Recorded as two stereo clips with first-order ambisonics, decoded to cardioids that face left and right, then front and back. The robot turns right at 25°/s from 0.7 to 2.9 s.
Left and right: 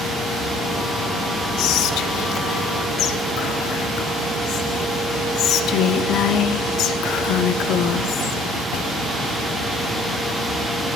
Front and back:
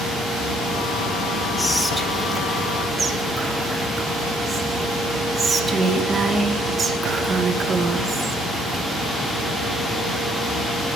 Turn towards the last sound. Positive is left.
turn(degrees=115)